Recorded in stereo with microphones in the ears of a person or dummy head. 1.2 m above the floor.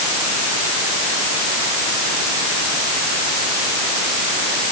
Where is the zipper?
I don't hear a zipper.